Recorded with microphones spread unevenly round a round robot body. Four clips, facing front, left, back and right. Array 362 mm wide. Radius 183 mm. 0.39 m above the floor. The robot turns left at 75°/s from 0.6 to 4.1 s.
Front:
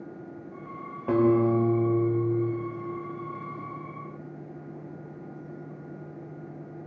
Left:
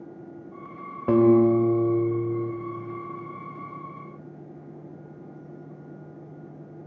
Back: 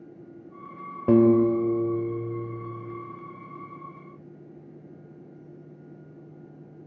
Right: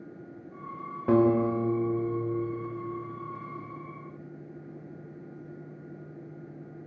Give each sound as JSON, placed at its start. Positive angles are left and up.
{"t": 1.1, "sound": "a guitar", "azimuth_deg": 160, "distance_m": 1.0}